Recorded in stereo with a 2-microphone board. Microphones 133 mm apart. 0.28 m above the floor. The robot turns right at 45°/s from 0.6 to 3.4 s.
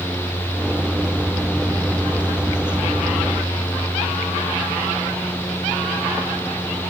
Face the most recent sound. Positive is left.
No sound to turn to.